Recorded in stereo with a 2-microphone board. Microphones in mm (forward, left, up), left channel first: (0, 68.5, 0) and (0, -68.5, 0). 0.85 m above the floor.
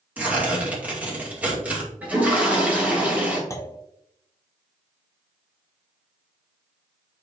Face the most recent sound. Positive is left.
turn(degrees=25)  # may be behind; listen again after turning